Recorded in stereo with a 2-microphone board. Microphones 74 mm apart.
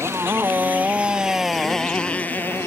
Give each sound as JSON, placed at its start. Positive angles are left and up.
{"t": 0.0, "sound": "a motorcycle", "side_deg": -35}